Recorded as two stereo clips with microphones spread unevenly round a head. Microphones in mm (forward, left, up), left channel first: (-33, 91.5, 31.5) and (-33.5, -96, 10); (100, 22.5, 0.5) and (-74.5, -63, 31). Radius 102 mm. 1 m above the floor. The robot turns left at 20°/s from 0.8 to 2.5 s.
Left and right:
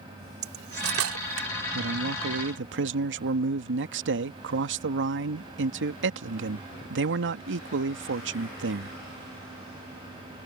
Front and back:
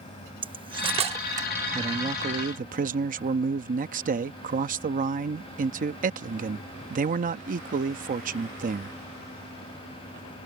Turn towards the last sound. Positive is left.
turn(degrees=-105)